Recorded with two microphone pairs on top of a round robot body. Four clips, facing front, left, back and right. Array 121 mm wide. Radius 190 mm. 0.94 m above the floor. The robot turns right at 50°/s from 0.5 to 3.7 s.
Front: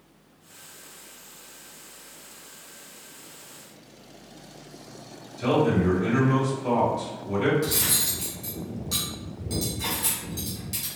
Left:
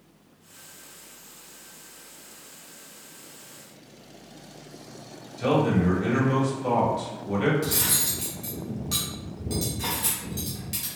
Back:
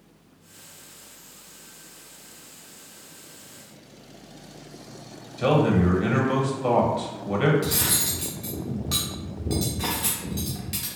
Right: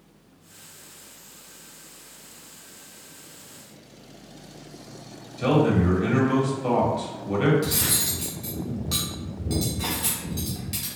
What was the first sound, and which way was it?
A man speaking, 175° right.